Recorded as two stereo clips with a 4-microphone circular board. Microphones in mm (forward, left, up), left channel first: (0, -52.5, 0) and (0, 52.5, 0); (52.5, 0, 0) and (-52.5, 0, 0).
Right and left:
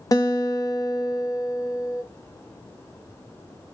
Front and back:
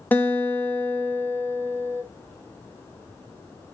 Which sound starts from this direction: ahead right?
A guitar, at 0.1 s.